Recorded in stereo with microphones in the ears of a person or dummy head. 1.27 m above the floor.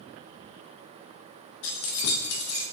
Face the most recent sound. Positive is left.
turn(degrees=70)  # may be behind; listen again after turning